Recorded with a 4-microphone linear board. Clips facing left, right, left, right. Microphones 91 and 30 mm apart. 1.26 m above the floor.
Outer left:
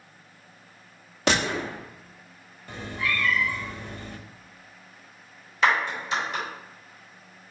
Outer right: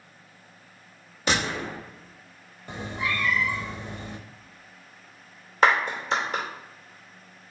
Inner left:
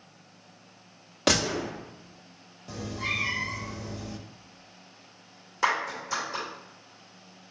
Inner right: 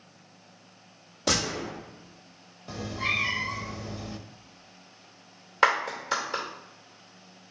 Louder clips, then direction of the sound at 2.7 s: Even, inner right 2 dB; 20° right (ahead or behind).